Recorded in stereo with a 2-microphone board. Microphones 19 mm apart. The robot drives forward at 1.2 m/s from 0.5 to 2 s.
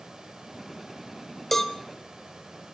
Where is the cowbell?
15° left (ahead or behind), 0.8 m; by 1.8 s 20° left (ahead or behind), 0.5 m.